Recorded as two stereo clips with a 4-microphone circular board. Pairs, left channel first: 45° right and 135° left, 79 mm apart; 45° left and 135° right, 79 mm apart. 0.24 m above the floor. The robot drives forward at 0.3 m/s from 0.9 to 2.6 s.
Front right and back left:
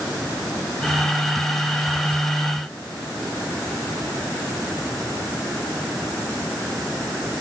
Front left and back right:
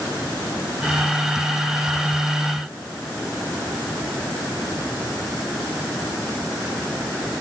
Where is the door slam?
No door slam in this recording.